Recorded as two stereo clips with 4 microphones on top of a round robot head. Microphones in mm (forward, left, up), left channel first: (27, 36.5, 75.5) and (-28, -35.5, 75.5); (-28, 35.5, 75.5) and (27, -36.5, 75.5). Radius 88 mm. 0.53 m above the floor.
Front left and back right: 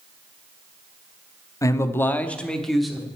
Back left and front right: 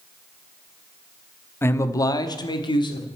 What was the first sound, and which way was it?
A man speaking, 80° left.